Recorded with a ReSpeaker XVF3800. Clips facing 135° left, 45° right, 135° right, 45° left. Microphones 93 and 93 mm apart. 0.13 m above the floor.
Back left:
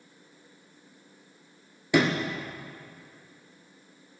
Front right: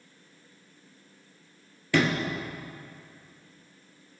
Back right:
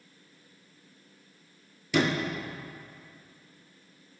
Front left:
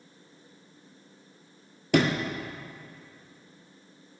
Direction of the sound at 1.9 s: 65° left.